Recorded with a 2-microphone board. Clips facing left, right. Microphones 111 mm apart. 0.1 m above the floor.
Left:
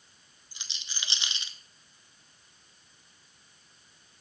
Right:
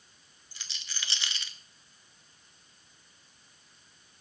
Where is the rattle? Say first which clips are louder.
Even; 20° left (ahead or behind), 0.8 m.